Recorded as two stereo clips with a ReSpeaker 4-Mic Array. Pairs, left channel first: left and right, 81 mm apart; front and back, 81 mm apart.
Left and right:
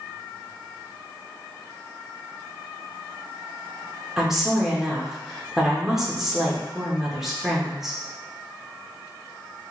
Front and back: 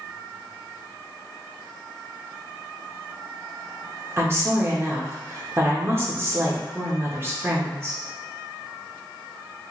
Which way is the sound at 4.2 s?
170° right.